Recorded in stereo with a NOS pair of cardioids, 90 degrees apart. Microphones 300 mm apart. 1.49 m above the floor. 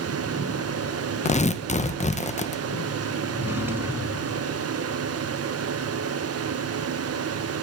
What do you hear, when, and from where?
0.0 s a fan: 55° right, 1.4 m
1.2 s tearing paper: 25° left, 1.3 m
3.3 s a drawer: 5° right, 4.5 m